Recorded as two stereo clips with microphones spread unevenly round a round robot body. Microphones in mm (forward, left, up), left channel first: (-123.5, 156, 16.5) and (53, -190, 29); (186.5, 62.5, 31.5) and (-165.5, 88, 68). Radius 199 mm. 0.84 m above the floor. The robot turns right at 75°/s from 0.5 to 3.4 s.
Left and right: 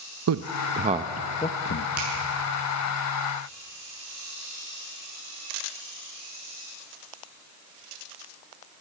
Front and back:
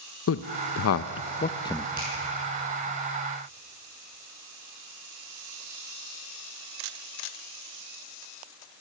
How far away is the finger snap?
About 8.5 m.